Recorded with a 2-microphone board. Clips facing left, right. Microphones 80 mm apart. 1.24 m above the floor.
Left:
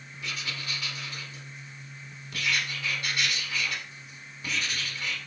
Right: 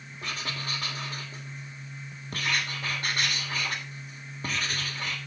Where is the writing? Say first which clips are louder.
Right 2 dB; 45° right (ahead or behind), 2.5 m.